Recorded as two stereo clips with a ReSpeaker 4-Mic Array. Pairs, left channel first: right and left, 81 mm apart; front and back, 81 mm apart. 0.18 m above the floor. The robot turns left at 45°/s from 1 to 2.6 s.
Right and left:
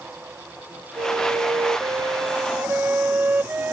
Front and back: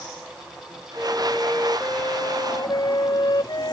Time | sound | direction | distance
1.0 | a flute | 95° left | ?